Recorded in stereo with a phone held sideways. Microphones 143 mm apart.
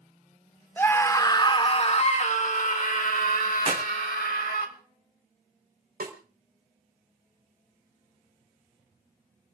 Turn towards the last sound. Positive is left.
turn(degrees=-85)